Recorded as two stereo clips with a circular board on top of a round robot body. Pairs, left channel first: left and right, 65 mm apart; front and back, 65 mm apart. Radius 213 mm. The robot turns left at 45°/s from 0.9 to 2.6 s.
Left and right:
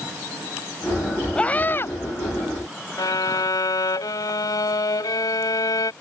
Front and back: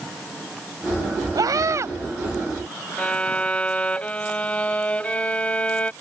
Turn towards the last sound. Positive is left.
turn(degrees=70)